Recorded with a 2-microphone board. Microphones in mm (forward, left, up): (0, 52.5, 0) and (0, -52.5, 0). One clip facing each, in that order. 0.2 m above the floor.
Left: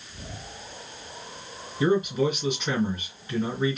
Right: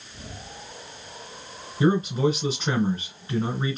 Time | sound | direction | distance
1.8 | a man speaking | 35° right (ahead or behind) | 2 m